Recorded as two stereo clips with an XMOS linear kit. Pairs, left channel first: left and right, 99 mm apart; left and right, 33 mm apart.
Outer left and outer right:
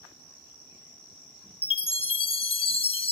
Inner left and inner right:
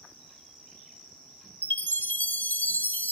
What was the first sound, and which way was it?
A chime, 65° left (ahead or behind).